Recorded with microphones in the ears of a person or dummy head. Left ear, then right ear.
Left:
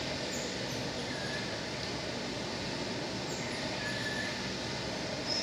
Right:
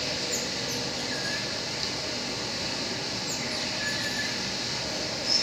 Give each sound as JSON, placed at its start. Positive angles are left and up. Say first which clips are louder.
{"t": 0.0, "sound": "running water", "louder": "right 6 dB", "side_deg": -25, "distance_m": 2.5}